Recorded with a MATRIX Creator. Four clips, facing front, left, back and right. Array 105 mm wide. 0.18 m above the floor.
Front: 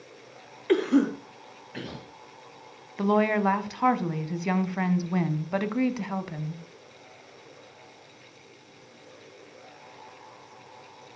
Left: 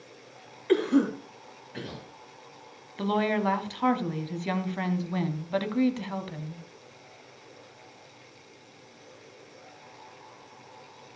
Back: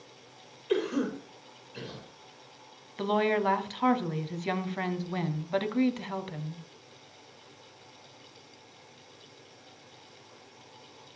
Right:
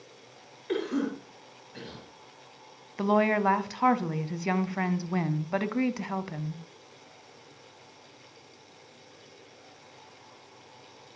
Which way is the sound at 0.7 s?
15° left.